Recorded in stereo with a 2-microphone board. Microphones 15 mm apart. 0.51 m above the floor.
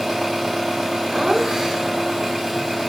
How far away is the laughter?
About 1.3 m.